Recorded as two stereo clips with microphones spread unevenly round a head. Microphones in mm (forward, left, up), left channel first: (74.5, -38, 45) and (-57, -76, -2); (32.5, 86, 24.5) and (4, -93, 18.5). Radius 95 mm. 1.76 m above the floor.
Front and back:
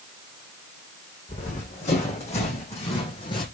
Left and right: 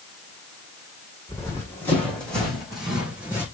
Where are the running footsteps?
10° left, 4.5 m; by 3.5 s 20° right, 4 m.